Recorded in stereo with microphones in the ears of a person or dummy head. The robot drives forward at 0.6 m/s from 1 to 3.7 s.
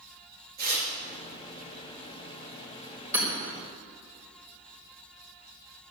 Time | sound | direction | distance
0.6 | tearing paper | 50° right (ahead or behind) | 3 m
3.1 | hammering | 20° right (ahead or behind) | 3.5 m